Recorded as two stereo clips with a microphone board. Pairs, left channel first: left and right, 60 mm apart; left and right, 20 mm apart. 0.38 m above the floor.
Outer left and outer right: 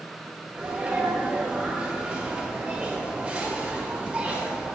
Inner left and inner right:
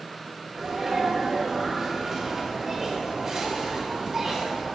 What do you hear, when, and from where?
0.5 s a sneeze: 20° right (ahead or behind), 1.0 m